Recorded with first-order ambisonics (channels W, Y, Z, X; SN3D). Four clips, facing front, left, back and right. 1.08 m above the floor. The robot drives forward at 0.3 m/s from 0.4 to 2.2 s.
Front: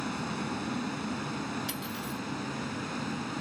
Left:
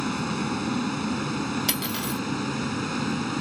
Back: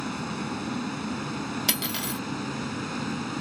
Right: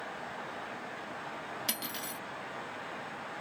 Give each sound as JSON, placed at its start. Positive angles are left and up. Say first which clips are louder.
{"t": 0.0, "sound": "a vehicle", "louder": "left 13 dB, back 2 dB", "azimuth_deg": 100}
{"t": 1.7, "sound": "cutlery clinking", "louder": "left 10 dB, back 7 dB", "azimuth_deg": 150}